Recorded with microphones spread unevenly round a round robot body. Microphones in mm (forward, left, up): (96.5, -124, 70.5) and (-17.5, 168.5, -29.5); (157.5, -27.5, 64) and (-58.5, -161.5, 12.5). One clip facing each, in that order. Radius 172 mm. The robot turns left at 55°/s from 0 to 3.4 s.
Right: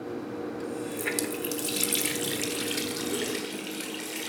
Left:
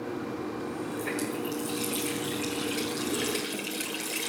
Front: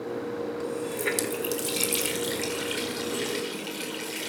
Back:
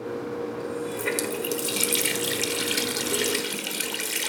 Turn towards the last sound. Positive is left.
turn(degrees=-165)